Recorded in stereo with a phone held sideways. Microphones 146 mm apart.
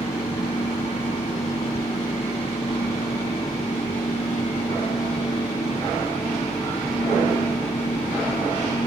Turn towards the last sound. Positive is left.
turn(degrees=45)  # may be behind; listen again after turning